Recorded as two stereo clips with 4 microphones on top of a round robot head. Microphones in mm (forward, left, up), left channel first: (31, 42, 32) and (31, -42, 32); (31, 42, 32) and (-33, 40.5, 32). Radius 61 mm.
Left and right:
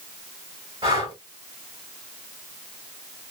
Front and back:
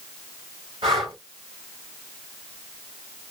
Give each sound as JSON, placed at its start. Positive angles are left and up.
{"t": 0.8, "sound": "breathing", "azimuth_deg": -145, "distance_m": 1.9}